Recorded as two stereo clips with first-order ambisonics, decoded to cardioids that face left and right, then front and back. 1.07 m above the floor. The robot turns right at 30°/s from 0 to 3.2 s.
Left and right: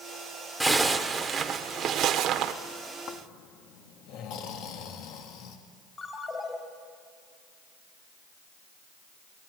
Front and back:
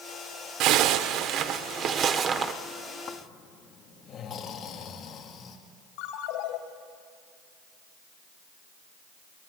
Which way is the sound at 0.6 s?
175° right.